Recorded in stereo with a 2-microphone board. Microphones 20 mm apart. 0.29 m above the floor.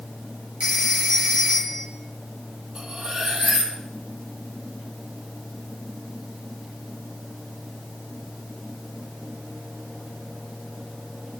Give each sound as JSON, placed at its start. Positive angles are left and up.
{"t": 0.6, "sound": "a phone ringing", "side_deg": -60, "distance_m": 3.0}
{"t": 2.8, "sound": "cutlery clinking", "side_deg": -70, "distance_m": 5.0}